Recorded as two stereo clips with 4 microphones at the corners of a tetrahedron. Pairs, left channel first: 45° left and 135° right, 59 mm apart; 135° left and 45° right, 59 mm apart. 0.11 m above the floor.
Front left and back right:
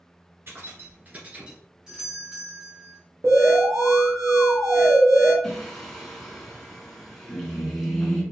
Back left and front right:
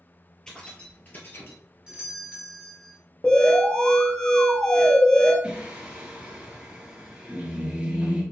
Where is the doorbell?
85° right, 1.5 m.